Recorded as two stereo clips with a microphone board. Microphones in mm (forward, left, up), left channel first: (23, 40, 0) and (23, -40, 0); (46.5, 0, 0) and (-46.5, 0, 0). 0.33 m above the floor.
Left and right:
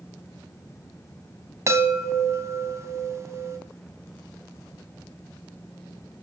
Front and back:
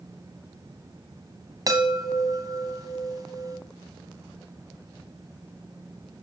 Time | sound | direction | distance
1.7 | a chime | 140° right | 2.5 m